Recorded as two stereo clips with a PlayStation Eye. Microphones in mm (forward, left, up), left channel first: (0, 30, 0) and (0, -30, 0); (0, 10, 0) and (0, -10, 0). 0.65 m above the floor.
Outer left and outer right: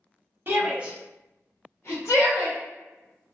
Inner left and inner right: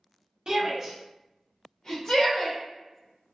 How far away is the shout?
About 0.9 m.